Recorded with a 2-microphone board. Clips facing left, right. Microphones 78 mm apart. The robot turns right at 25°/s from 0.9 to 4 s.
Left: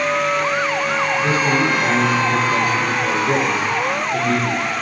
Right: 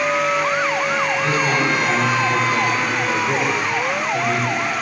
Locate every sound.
1.1 s a man speaking: 25° left, 5 m; by 4.7 s 100° left, 5 m